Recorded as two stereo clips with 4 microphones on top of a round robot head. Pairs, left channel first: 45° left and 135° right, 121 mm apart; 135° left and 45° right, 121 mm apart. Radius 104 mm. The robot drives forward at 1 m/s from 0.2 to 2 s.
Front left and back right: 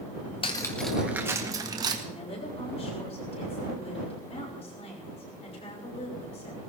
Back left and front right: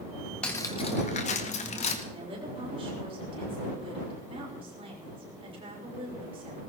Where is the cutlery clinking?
55° left, 0.8 m; by 1.9 s 170° left, 1.6 m.